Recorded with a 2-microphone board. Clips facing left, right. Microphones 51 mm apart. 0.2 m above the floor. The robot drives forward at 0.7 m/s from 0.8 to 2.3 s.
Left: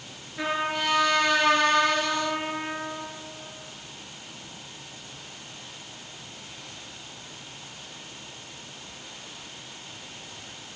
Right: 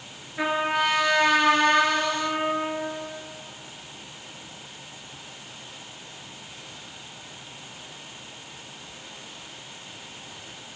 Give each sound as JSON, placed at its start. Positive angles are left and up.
{"t": 0.4, "sound": "a trumpet", "side_deg": -25, "distance_m": 3.0}